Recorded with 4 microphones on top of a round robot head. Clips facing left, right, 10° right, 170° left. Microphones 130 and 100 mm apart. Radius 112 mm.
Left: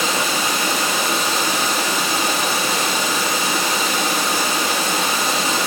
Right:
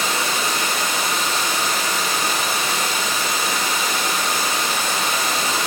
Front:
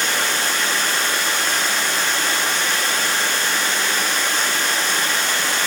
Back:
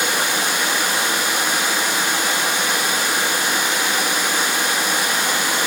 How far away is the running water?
About 1.2 m.